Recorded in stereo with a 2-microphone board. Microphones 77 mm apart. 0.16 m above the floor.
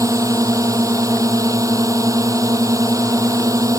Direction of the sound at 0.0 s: 45° right (ahead or behind).